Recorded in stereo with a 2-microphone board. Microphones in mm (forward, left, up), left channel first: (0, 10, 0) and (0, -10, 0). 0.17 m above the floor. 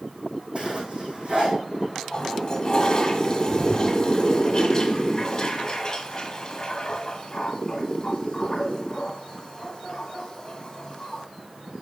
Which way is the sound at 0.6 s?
60° right (ahead or behind).